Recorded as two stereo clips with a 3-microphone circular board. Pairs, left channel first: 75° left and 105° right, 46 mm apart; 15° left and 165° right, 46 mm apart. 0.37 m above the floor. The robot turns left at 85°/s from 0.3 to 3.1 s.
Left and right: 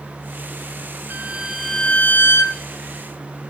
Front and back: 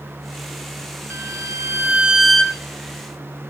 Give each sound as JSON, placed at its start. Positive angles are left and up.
{"t": 1.1, "sound": "a violin", "azimuth_deg": -150, "distance_m": 0.6}